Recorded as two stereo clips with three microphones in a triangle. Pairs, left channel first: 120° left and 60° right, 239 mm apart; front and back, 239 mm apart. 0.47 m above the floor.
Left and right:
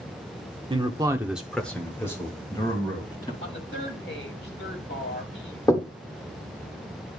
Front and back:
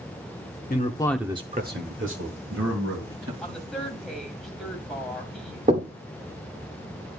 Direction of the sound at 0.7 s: 5° right.